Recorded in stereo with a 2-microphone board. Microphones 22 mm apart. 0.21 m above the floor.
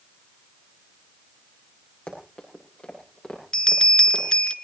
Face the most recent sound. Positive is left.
turn(degrees=40)  # may be behind; listen again after turning